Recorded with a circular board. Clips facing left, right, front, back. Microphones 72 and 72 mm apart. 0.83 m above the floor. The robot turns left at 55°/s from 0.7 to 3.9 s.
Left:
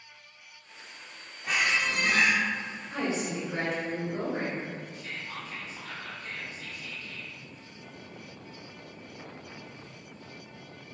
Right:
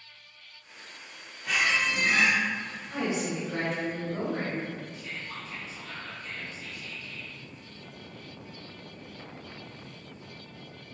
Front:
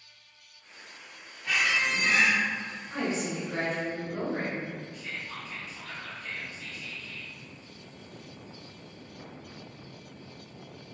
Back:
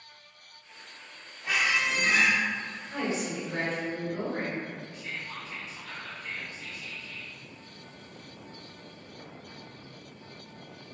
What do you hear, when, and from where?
1.4 s a squeak: 125° left, 0.7 m; by 2.4 s 75° left, 0.7 m
2.9 s a woman speaking: 30° right, 1.9 m; by 4.7 s 85° right, 1.9 m
4.9 s whispering: 85° left, 0.9 m